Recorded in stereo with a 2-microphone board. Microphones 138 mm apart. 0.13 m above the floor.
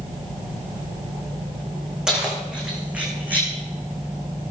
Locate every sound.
2.1 s keys jangling: 5° right (ahead or behind), 5.5 m; by 3.5 s 15° right (ahead or behind), 5.5 m